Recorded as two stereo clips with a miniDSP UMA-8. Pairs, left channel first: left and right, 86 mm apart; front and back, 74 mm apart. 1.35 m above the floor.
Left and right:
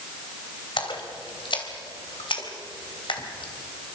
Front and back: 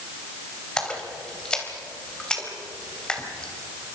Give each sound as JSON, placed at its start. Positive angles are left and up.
{"t": 0.8, "sound": "a splash", "azimuth_deg": 75, "distance_m": 3.0}